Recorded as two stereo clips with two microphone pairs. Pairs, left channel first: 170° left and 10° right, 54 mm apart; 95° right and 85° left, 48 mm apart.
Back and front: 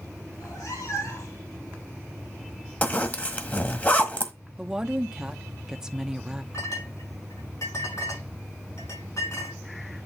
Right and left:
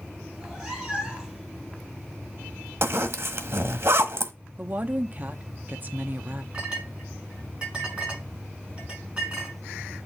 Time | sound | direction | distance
0.3 | a cat meowing | 150° left | 5.5 m
2.8 | a zipper | 110° left | 1.4 m
4.6 | a woman speaking | 60° left | 0.8 m
6.5 | a clink | 150° left | 6 m